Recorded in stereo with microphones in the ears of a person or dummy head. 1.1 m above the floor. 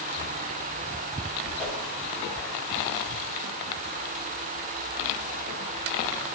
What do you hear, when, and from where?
1.6 s a whoosh: 15° left (ahead or behind), 4 m